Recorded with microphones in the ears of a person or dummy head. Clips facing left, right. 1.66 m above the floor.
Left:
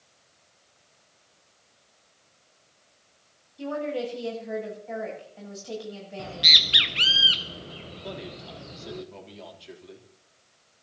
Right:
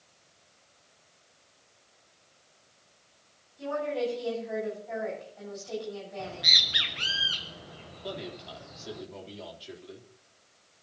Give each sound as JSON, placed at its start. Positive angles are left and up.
{"t": 3.6, "sound": "a woman speaking", "side_deg": 45, "distance_m": 9.5}
{"t": 6.2, "sound": "a bird", "side_deg": 25, "distance_m": 0.7}
{"t": 8.0, "sound": "a man speaking", "side_deg": 0, "distance_m": 3.5}